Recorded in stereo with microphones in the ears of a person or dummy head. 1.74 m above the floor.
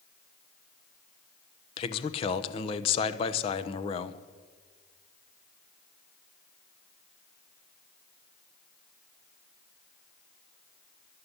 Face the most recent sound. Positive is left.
turn(degrees=35)  # may be behind; listen again after turning